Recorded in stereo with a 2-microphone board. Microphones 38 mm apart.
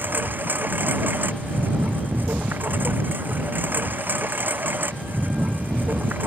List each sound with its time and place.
0.0 s a lawn mower: 50° right (ahead or behind)